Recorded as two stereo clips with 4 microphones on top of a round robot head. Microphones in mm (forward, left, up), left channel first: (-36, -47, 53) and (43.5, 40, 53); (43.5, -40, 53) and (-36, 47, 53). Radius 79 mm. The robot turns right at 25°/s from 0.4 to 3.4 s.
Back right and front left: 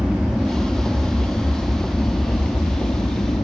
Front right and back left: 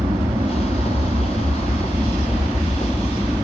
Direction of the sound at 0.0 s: 145° left.